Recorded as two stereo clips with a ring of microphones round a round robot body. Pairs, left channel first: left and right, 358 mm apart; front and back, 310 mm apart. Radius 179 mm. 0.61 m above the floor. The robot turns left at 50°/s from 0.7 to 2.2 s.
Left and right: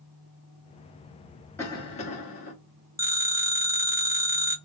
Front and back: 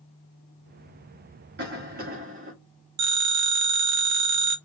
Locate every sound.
1.6 s a cough: 170° left, 0.9 m; by 2.5 s 135° left, 0.9 m
3.0 s a phone ringing: 175° right, 0.9 m